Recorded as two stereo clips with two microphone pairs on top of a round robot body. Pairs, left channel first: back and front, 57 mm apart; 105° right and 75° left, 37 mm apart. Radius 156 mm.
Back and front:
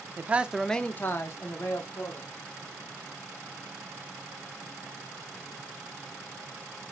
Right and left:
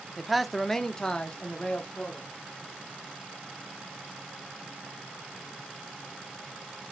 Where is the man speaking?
15° right, 0.8 m; by 2.3 s 170° right, 2.0 m.